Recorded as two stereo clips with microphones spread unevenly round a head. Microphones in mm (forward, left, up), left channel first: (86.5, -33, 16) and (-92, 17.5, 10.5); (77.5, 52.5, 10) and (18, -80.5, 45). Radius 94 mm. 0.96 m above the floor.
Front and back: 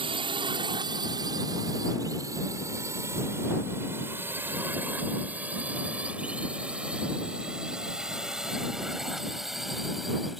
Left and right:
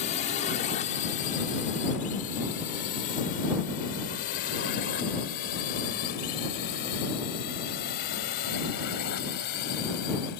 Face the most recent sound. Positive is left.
turn(degrees=75)